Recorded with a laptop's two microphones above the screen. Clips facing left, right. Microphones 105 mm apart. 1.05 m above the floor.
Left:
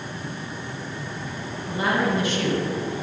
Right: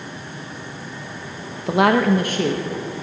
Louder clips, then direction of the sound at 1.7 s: Right 8 dB; 70° right (ahead or behind).